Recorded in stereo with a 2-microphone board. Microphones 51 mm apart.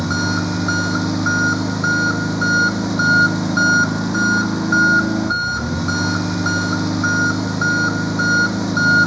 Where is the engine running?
Centre (ahead or behind).